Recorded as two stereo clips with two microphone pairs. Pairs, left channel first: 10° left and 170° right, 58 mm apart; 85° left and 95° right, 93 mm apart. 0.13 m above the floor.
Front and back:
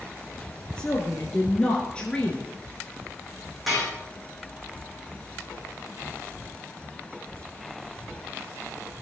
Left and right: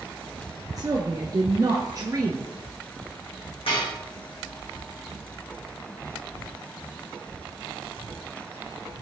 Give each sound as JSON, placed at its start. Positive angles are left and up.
{"t": 0.8, "sound": "a woman speaking", "azimuth_deg": -65, "distance_m": 1.6}
{"t": 3.7, "sound": "dishes clattering", "azimuth_deg": 100, "distance_m": 5.5}